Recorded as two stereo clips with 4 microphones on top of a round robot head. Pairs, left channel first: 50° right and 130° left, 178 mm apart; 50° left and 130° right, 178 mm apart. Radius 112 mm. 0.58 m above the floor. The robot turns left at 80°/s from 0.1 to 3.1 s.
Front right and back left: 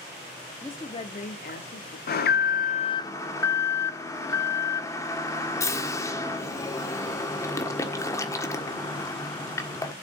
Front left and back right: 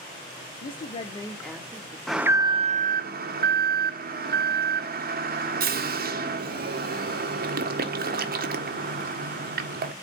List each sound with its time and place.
0.6 s a woman speaking: 30° left, 1.0 m; by 2.0 s 75° right, 1.0 m
2.1 s an alarm: 40° right, 1.4 m; by 9.9 s 120° right, 1.4 m